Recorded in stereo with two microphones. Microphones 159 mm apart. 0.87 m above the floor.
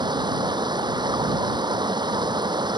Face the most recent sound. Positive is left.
turn(degrees=-30)  # may be behind; listen again after turning